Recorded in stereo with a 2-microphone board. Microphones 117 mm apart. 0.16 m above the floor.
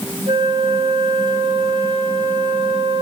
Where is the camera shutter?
No camera shutter in this recording.